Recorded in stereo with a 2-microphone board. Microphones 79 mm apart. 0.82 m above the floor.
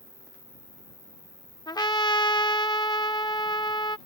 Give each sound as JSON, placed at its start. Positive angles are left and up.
{"t": 0.0, "sound": "an insect", "side_deg": -75}
{"t": 1.7, "sound": "a trumpet", "side_deg": 60}